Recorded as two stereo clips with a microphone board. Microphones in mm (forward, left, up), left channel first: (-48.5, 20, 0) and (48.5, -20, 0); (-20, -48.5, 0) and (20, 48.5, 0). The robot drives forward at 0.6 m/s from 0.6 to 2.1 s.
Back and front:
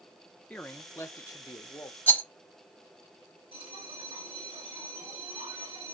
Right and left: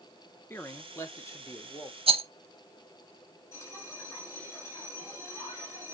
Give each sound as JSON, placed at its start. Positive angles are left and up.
{"t": 0.5, "sound": "a man speaking", "azimuth_deg": -145, "distance_m": 0.8}
{"t": 2.1, "sound": "a rattle", "azimuth_deg": 85, "distance_m": 0.5}
{"t": 3.5, "sound": "a bell", "azimuth_deg": -45, "distance_m": 3.0}